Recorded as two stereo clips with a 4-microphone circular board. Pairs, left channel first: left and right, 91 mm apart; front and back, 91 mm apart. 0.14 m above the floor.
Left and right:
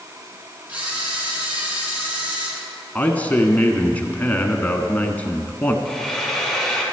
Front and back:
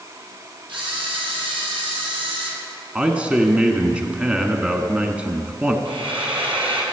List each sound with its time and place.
0.7 s a camera shutter: 160° right, 3 m
3.0 s a man speaking: 125° left, 1.1 m
5.8 s frying: 175° left, 3 m